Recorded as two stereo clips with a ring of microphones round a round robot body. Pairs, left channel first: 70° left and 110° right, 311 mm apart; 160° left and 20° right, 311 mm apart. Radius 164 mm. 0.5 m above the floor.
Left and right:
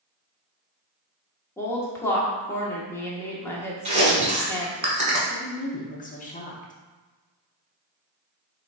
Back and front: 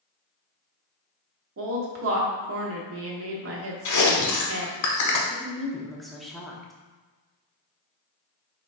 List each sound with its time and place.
1.6 s a woman speaking: 10° right, 1.0 m
3.9 s chewing: 175° left, 1.2 m
5.3 s a woman speaking: 70° left, 0.7 m